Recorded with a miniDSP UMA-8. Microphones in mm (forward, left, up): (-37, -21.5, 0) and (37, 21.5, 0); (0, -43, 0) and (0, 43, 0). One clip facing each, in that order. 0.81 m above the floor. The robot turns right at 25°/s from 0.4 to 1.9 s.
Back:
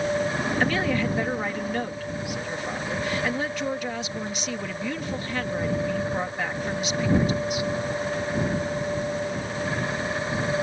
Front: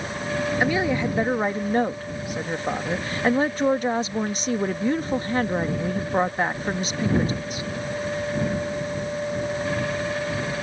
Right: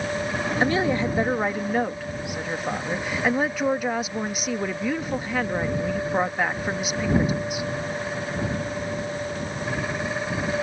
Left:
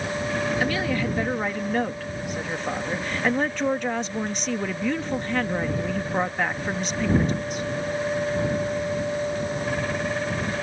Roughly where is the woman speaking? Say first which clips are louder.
Front 1 dB, right 3 dB; ahead right.